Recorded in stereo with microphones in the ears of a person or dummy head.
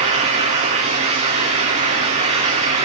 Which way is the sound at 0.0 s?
40° right (ahead or behind).